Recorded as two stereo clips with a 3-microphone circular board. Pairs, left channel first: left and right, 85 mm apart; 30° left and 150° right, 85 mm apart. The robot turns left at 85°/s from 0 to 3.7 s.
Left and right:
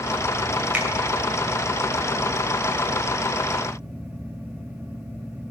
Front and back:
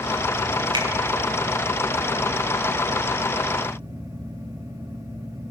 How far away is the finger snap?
About 2.5 m.